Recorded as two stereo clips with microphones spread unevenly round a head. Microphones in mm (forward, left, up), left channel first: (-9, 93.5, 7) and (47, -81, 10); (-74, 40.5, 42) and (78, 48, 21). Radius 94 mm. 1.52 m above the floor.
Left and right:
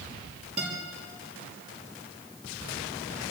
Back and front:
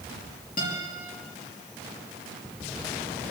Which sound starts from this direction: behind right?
A guitar, at 0.6 s.